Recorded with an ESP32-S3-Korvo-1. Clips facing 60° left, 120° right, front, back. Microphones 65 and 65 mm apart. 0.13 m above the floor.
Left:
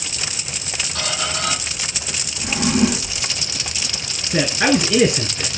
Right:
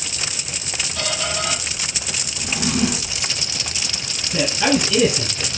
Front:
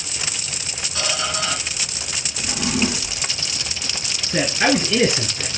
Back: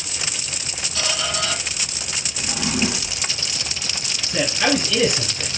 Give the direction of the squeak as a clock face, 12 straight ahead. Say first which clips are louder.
Even, front 1 dB; 10 o'clock.